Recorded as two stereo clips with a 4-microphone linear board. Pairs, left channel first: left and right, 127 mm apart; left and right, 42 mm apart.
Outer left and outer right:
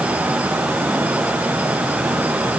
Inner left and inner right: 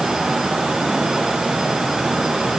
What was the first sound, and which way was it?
Only background noise.